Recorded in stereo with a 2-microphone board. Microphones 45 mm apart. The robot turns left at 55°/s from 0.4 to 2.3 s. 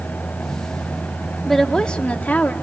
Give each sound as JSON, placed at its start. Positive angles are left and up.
{"t": 1.4, "sound": "a woman speaking", "azimuth_deg": 175, "distance_m": 1.0}